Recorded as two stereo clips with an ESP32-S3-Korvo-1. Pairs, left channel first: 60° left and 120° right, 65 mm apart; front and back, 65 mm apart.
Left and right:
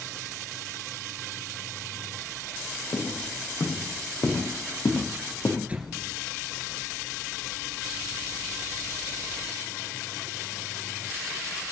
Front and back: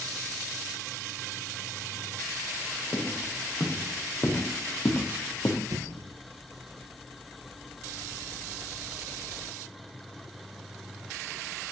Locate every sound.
2.9 s footsteps: 45° left, 5 m; by 5.6 s 30° left, 3.5 m
5.7 s an explosion: 170° left, 2 m